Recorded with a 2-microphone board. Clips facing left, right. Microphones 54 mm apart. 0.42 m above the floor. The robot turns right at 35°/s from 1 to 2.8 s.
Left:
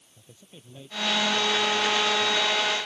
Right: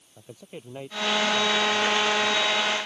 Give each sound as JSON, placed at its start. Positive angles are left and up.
{"t": 0.2, "sound": "a man speaking", "azimuth_deg": -65}